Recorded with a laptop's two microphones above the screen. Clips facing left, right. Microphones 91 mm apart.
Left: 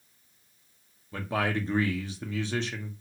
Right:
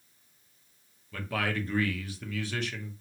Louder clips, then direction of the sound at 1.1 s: Left 3 dB; 25° left (ahead or behind).